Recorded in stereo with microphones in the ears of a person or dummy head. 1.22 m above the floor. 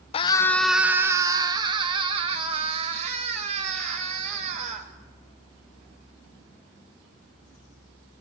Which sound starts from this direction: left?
A scream, at 0.1 s.